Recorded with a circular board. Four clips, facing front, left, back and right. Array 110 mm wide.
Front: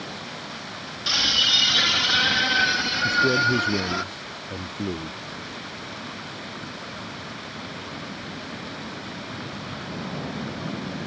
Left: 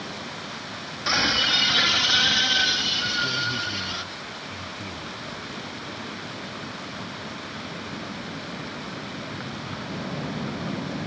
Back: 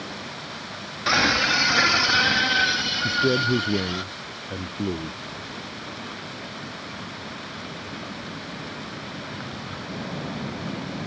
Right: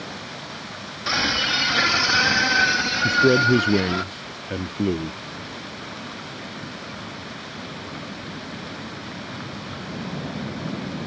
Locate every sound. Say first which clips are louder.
1.1 s a scream: right 1 dB, back 8 dB; 175° left; by 4.0 s 50° right
3.0 s a man speaking: right 13 dB, front 1 dB; 95° right